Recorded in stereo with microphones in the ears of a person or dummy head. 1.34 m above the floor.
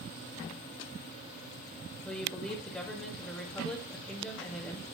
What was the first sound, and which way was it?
A woman speaking, 10° left (ahead or behind).